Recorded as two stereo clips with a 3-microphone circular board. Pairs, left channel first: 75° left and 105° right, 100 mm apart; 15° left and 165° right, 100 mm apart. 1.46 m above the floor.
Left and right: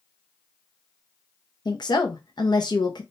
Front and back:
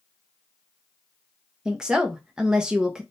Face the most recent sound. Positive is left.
turn(degrees=115)